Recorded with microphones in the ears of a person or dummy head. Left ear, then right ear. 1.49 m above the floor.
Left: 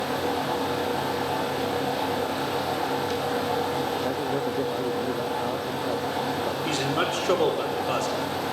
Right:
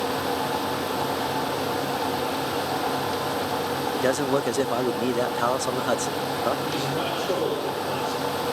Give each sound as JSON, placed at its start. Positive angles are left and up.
{"t": 3.9, "sound": "a man speaking", "side_deg": -60, "distance_m": 0.6}
{"t": 6.7, "sound": "a man speaking", "side_deg": 65, "distance_m": 4.0}